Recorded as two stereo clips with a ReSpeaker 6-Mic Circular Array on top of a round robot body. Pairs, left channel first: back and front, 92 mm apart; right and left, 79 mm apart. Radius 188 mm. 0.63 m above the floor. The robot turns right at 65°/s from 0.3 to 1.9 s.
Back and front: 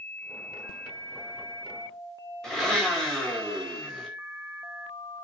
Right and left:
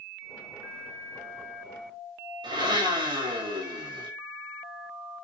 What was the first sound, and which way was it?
A blender, 95° left.